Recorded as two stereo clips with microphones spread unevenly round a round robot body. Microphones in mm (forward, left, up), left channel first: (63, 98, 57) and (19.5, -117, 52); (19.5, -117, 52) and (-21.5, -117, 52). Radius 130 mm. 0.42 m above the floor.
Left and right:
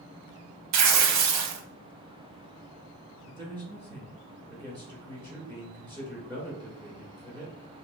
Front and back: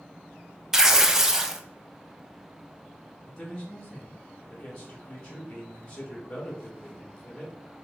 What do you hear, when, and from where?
0.7 s tearing paper: 100° right, 0.6 m
3.3 s a man speaking: 55° right, 1.3 m